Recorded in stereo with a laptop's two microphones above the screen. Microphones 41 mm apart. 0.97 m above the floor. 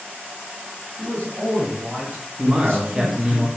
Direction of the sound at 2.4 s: 15° right (ahead or behind).